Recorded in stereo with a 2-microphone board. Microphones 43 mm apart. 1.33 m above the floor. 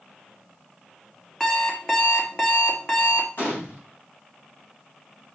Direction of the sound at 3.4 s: 50° left (ahead or behind).